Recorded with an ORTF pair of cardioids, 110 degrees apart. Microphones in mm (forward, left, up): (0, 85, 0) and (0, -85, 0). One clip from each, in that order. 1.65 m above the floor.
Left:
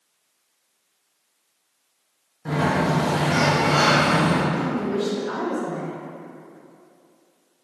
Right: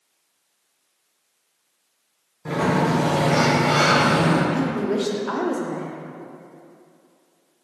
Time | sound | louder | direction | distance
2.5 | a sliding door | right 1 dB | 5° right | 1.4 m
4.5 | a woman speaking | right 2 dB | 30° right | 0.6 m